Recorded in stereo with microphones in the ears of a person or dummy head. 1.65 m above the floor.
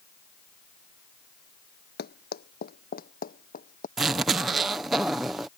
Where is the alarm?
I don't hear an alarm.